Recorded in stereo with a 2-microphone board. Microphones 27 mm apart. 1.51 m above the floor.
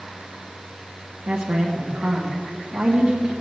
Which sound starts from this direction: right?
A woman speaking, at 1.3 s.